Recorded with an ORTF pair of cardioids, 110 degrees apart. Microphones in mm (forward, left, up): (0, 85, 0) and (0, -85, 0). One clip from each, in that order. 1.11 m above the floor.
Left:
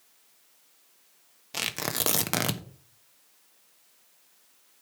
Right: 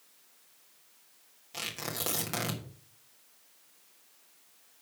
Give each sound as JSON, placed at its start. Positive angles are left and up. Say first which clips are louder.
{"t": 1.5, "sound": "tearing paper", "louder": "left 6 dB", "azimuth_deg": 50, "distance_m": 1.2}